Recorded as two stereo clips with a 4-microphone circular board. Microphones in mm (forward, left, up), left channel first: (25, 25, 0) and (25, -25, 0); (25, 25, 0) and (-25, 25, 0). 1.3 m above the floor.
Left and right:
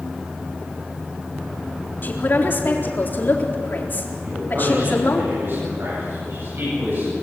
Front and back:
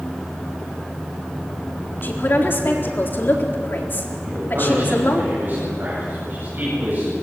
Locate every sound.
2.0 s a man speaking: 45° left, 4 m
4.2 s a man speaking: 130° right, 9.5 m